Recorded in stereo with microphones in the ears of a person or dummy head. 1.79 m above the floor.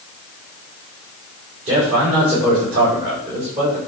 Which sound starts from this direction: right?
A man speaking, at 1.6 s.